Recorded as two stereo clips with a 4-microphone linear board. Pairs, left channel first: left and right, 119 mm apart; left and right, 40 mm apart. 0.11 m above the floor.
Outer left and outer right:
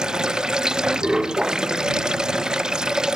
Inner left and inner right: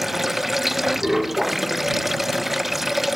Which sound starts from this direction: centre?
Running water, at 0.0 s.